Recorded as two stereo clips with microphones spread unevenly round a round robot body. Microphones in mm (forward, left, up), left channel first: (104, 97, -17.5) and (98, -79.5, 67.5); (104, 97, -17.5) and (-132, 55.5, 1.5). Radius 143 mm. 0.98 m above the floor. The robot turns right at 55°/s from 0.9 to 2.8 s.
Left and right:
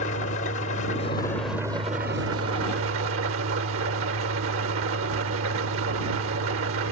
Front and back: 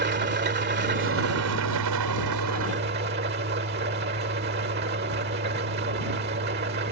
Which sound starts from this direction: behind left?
An engine running, at 0.0 s.